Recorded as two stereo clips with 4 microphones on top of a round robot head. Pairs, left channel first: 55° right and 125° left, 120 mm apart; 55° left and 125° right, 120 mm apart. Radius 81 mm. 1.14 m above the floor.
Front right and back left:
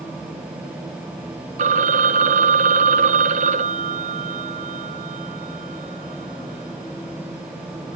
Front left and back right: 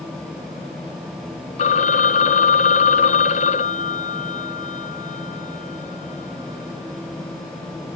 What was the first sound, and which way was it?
A phone ringing, 90° left.